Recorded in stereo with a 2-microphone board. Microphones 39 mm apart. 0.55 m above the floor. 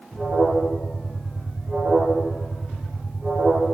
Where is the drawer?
I don't hear a drawer.